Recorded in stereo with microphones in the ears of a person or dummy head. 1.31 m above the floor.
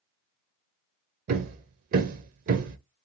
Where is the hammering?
55° right (ahead or behind), 0.5 m.